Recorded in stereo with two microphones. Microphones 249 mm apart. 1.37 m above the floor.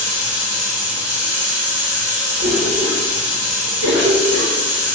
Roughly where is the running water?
Right.